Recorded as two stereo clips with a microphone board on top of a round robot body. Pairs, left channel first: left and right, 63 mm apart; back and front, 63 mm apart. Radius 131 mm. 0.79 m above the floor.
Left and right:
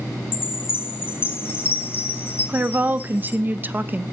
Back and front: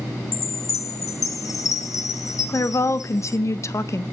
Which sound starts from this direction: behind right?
A woman speaking, at 2.5 s.